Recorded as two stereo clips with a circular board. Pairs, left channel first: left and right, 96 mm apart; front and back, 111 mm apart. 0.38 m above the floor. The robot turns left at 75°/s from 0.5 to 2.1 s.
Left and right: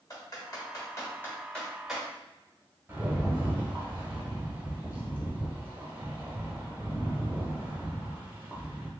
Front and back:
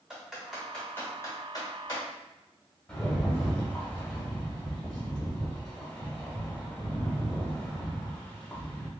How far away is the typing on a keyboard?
About 1.1 m.